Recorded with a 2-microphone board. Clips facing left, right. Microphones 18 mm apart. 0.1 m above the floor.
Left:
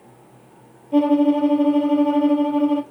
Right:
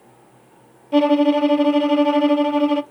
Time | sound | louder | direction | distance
0.9 | a violin | right 1 dB | 45° right (ahead or behind) | 0.6 m